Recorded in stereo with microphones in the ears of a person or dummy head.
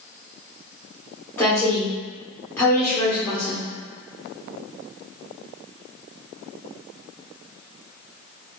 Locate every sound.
1.4 s a woman speaking: 5° left (ahead or behind), 1.5 m